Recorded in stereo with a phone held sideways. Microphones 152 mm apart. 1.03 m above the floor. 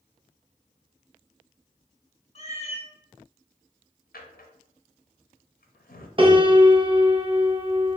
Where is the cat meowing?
45° left (ahead or behind), 0.8 m.